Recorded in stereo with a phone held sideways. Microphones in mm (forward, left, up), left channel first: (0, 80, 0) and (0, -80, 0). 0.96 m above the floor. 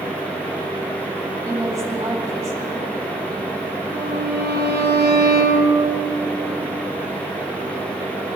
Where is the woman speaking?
20° right (ahead or behind), 3 m.